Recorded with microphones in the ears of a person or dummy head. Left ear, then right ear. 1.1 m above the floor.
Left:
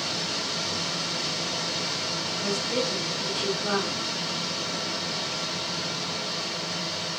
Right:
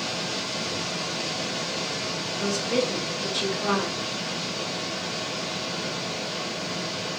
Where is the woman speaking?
50° right (ahead or behind), 1.3 m.